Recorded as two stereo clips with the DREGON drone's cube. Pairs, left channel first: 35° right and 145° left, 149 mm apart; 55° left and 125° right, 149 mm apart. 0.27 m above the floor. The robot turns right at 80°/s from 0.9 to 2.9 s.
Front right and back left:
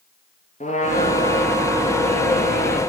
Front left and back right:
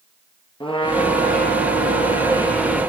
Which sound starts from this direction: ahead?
A trumpet, at 0.6 s.